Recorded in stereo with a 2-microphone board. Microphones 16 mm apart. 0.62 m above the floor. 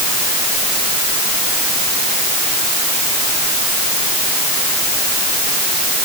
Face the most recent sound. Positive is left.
No sound to turn to.